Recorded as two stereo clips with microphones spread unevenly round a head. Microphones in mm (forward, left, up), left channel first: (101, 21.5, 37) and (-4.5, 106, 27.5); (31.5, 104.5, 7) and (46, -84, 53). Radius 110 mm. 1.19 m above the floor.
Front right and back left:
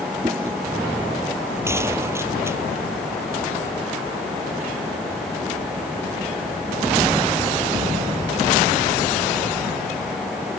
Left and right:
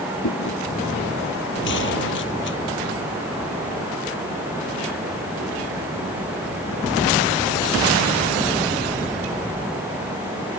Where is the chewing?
70° left.